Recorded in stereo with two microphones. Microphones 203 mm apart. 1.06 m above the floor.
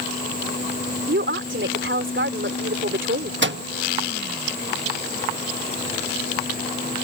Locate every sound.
1.1 s a woman speaking: 75° right (ahead or behind)
3.4 s a microwave: 70° right (ahead or behind)